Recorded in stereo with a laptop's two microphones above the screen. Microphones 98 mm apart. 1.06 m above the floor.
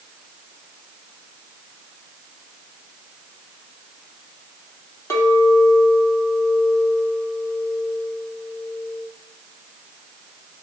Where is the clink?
30° left (ahead or behind), 1.5 m.